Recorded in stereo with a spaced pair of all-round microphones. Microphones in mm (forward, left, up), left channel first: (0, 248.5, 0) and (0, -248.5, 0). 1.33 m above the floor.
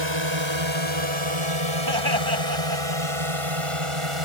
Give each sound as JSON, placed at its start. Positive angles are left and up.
{"t": 0.0, "sound": "a drone", "side_deg": -60}
{"t": 1.9, "sound": "laughter", "side_deg": -50}